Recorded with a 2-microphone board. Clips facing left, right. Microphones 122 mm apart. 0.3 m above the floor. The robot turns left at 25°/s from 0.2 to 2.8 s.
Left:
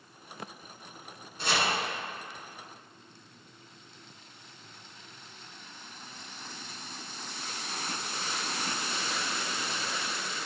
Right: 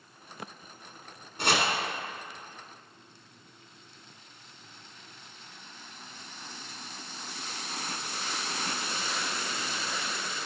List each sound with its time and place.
1.4 s chopping: 75° right (ahead or behind), 1.6 m